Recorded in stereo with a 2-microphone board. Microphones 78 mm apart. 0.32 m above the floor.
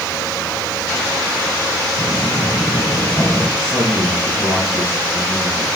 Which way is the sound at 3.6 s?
35° left (ahead or behind).